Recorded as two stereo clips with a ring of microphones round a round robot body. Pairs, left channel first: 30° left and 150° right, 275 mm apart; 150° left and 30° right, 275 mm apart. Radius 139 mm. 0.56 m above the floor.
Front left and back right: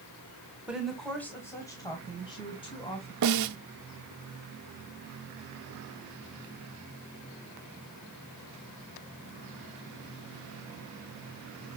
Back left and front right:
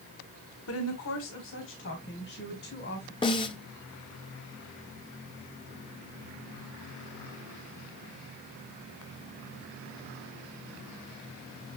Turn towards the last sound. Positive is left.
turn(degrees=-140)